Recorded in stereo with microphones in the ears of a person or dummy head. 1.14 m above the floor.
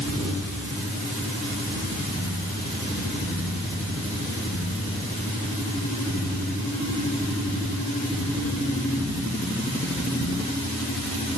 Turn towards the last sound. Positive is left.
No sound to turn to.